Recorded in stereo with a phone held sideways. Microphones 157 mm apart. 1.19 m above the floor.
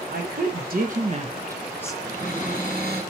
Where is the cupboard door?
70° right (ahead or behind), 5.5 m.